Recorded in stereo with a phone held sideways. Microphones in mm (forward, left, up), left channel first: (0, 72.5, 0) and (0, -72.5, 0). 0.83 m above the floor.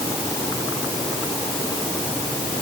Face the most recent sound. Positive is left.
No sound to turn to.